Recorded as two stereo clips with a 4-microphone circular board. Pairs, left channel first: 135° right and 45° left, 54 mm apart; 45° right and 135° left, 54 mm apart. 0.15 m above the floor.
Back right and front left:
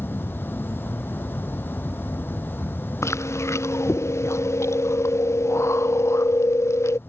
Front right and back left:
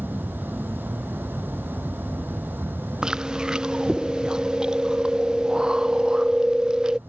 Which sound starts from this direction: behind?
An insect, at 0.0 s.